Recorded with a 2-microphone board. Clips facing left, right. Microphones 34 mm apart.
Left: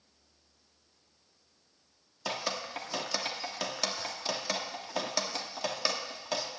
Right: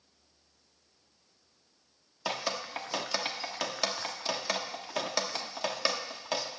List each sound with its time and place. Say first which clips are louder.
2.2 s dripping: right 1 dB; 10° right (ahead or behind), 1.2 m